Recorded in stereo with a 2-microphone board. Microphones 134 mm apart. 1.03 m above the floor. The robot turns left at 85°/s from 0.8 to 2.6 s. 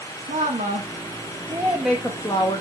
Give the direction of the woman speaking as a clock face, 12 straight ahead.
3 o'clock.